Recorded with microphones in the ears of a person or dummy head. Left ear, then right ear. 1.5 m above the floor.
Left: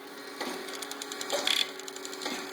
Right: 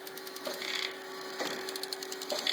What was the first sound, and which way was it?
Only background noise.